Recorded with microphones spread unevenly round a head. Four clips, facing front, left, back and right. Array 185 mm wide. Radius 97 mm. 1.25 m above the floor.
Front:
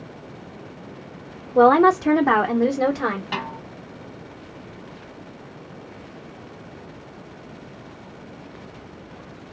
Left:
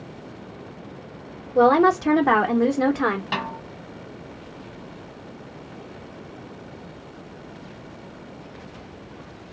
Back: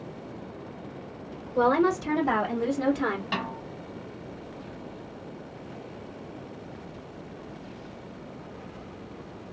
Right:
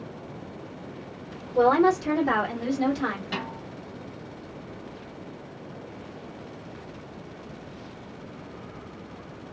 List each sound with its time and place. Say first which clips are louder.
1.6 s a woman speaking: left 3 dB, front 8 dB; 25° left, 1.4 m; by 3.2 s 65° left, 1.3 m
3.3 s a snare drum: left 5 dB, front 2 dB; 85° left, 1.4 m